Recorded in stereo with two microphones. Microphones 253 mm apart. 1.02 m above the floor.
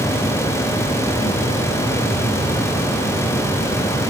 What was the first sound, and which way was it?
Only background noise.